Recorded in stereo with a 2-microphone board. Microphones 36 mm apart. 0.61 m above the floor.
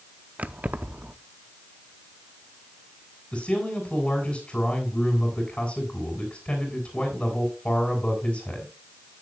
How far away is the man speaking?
About 3 m.